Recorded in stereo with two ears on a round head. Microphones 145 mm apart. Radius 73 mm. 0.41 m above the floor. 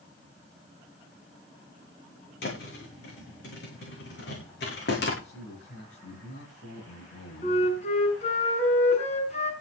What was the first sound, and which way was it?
A thud, 65° left (ahead or behind).